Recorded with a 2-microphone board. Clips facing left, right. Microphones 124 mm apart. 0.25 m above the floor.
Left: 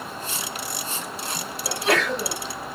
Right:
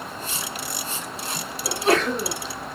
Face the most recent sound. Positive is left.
turn(degrees=-35)  # may be behind; listen again after turning